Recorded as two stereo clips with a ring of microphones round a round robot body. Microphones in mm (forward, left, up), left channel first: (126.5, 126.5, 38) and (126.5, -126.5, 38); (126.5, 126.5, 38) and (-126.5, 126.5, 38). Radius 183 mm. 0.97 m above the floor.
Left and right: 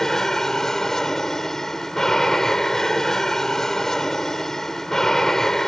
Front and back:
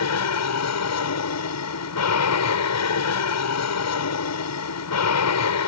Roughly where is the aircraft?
Ahead.